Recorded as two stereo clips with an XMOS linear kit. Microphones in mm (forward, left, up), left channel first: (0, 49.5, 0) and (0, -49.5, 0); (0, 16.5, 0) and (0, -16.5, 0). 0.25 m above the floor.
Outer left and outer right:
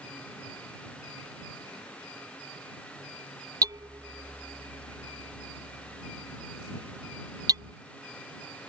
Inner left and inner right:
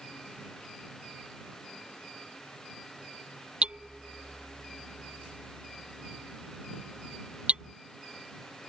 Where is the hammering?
40° right (ahead or behind).